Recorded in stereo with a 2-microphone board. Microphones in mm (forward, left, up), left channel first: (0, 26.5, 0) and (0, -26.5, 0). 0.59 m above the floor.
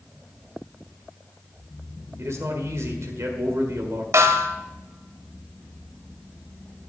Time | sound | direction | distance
2.2 | a man speaking | 65° right (ahead or behind) | 1.8 m
4.1 | a snare drum | 65° right (ahead or behind) | 1.1 m